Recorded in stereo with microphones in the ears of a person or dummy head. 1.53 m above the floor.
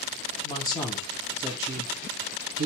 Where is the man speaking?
30° left (ahead or behind), 1.0 m; by 2.6 s 60° right (ahead or behind), 0.8 m.